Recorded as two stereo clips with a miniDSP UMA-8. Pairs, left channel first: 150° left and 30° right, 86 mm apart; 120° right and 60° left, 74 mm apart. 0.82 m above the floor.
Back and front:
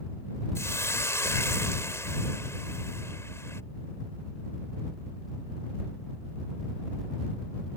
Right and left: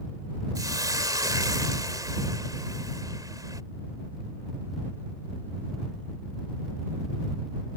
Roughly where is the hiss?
Left.